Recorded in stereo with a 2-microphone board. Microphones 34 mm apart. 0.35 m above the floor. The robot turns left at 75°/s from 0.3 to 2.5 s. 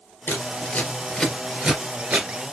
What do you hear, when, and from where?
0.3 s scissors: 85° left, 2.5 m; by 2.3 s 55° right (ahead or behind), 2.5 m